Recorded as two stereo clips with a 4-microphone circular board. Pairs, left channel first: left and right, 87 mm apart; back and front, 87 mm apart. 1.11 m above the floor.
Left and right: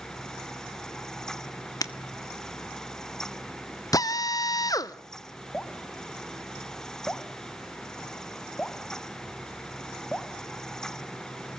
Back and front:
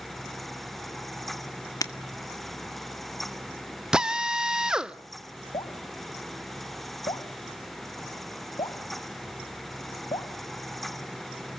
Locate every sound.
1.8 s breaking glass: 135° left, 1.3 m
3.9 s a drill: 75° left, 0.7 m
5.5 s dripping: 170° left, 0.9 m